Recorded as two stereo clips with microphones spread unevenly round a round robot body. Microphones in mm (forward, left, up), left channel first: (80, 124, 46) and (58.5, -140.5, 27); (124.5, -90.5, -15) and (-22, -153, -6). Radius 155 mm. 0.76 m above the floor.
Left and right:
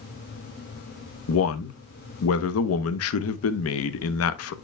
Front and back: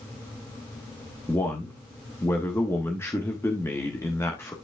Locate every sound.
1.3 s a man speaking: 95° left, 0.9 m